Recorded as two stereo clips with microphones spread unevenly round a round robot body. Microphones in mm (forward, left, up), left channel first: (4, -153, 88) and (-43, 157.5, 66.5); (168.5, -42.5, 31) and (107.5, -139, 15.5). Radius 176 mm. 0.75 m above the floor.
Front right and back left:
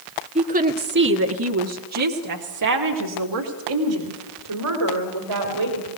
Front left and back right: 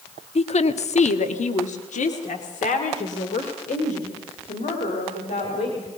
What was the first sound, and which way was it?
A woman speaking, 30° left.